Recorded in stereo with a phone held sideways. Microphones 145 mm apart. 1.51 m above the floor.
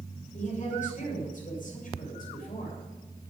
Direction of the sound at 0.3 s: 55° left (ahead or behind).